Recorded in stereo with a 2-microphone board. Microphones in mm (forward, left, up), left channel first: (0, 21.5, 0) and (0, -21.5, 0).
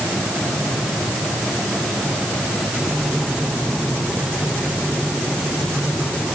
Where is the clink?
I don't hear a clink.